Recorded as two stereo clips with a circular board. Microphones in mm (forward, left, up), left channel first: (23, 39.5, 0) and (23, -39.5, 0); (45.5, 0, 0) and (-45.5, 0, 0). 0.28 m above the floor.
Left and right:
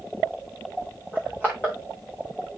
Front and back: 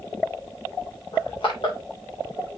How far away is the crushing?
About 6.5 m.